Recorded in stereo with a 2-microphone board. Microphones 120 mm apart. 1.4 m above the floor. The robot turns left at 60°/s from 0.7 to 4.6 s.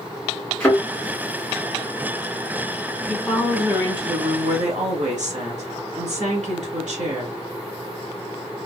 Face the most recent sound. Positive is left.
turn(degrees=-80)